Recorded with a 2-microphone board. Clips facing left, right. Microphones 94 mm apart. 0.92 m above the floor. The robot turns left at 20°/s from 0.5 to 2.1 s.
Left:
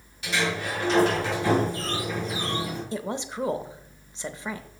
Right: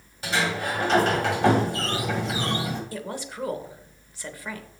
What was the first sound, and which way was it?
A sliding door, 35° right.